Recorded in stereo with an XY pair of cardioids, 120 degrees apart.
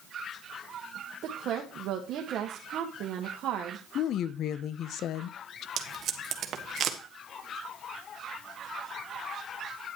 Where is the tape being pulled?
55° right, 1.5 m.